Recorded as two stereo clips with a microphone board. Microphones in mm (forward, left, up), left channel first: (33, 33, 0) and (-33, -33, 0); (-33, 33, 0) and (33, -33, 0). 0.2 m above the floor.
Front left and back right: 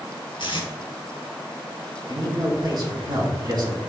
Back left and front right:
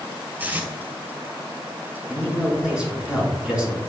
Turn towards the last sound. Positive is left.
turn(degrees=-120)